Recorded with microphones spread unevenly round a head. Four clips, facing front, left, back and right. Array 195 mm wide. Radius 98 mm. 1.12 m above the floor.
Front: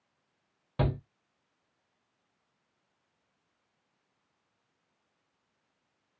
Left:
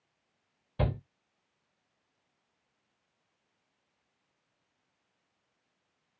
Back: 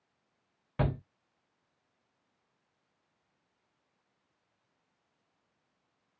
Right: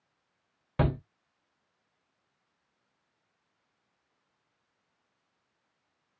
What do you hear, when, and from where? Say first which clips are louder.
0.8 s a shout: right 4 dB, front 1 dB; 95° right, 0.8 m